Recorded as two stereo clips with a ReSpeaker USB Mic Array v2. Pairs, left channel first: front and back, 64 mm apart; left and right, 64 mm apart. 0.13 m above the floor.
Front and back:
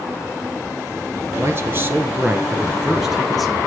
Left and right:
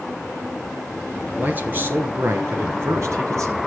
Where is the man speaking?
150° right, 2.5 m; by 3.6 s 90° right, 2.5 m.